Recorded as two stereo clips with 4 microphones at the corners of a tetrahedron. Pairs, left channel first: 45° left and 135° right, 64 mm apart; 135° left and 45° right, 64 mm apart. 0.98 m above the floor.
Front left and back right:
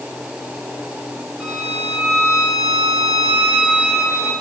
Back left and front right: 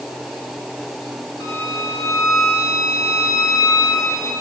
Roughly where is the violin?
Behind left.